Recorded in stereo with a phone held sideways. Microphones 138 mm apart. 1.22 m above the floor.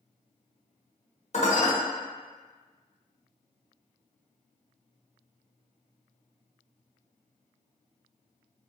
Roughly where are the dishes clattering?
Left.